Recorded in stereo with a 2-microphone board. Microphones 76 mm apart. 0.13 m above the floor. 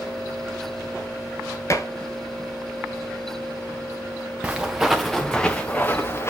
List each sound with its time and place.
1.7 s dishes clattering: 40° left (ahead or behind), 1.2 m
4.4 s footsteps: 15° right (ahead or behind), 1.1 m; by 6.3 s 35° left (ahead or behind), 1.1 m